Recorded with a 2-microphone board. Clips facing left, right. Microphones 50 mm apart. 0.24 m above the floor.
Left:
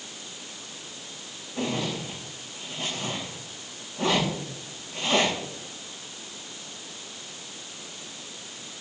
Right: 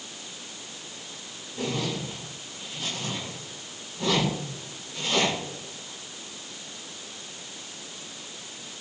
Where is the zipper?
60° left (ahead or behind), 9.5 m.